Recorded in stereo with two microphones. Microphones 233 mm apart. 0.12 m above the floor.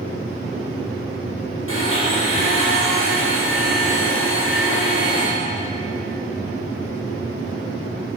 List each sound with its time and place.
1.7 s a blender: 65° left (ahead or behind), 3 m